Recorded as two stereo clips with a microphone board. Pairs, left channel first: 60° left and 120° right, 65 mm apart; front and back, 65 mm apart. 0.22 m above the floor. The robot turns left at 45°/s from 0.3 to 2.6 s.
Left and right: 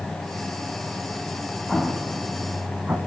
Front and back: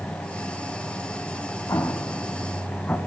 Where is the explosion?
25° right, 0.7 m; by 3.0 s 65° right, 0.7 m.